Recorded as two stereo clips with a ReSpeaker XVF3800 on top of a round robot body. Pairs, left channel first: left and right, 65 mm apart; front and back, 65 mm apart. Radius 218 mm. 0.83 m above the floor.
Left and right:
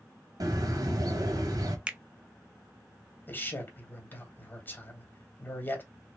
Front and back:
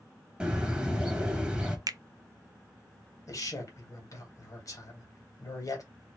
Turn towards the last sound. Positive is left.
turn(degrees=30)